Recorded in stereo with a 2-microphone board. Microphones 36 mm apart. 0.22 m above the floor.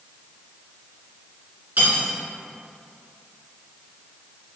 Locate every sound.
1.8 s cutlery clinking: 60° right (ahead or behind), 1.7 m